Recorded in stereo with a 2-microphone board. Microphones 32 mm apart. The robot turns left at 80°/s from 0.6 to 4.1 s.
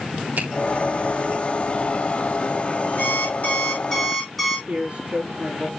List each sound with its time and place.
0.4 s a finger snap: 75° right (ahead or behind), 4 m
3.0 s an alarm clock: 90° left, 4 m; by 4.6 s straight ahead, 4 m
4.7 s a man speaking: 35° right (ahead or behind), 4.5 m